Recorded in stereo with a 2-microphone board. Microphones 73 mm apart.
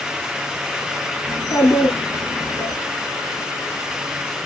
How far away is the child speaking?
About 2.5 m.